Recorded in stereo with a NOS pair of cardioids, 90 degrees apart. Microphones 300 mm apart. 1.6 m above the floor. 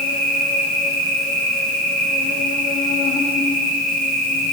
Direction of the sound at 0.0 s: 30° left.